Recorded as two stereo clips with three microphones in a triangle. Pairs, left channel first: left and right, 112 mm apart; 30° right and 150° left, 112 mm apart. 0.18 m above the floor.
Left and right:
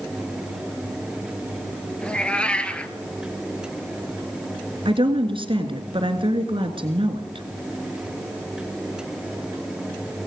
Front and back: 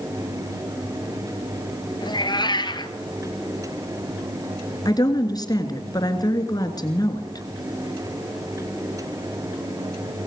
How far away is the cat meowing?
About 1.4 m.